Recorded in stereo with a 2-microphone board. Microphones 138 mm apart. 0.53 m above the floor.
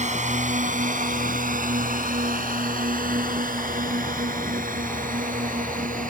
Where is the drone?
60° right (ahead or behind); by 6.1 s 70° right (ahead or behind).